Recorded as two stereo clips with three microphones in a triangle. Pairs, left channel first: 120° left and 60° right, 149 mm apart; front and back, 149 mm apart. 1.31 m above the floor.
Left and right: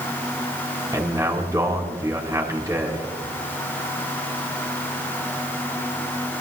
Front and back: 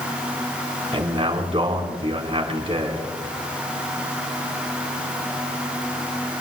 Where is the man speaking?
130° right, 4.5 m.